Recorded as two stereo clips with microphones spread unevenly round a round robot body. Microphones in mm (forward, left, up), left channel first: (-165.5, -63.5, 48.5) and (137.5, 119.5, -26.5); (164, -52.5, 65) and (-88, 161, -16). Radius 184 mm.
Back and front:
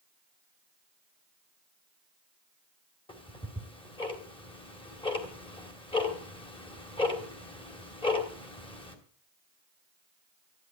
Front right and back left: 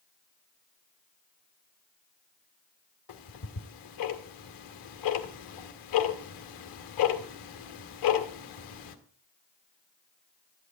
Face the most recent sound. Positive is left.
turn(degrees=-65)